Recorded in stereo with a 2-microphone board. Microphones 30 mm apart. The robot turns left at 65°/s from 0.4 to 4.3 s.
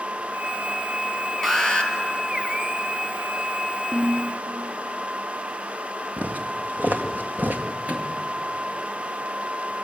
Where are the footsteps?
55° right (ahead or behind), 1.8 m; by 7.6 s 80° right, 2 m.